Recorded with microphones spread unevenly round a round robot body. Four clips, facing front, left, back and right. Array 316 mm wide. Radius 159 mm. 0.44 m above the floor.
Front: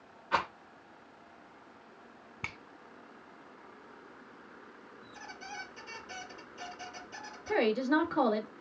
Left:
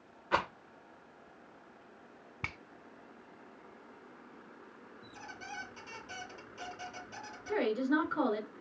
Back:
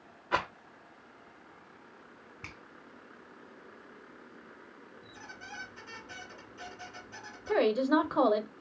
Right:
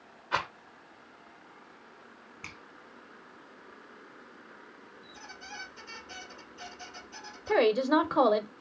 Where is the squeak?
120° left, 2 m.